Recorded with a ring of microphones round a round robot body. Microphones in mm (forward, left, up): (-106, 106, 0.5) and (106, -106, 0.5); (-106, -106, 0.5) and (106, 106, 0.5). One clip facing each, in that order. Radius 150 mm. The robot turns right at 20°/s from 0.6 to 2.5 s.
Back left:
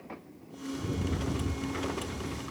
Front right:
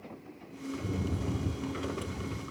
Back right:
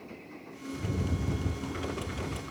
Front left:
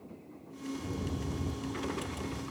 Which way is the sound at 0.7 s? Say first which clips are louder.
Back left 1 dB, back right 3 dB; 140° right.